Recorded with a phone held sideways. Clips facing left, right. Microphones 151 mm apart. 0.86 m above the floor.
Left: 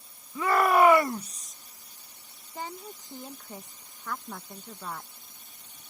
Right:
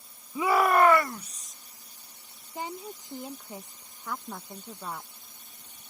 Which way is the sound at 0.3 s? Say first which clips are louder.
Even; 20° right (ahead or behind).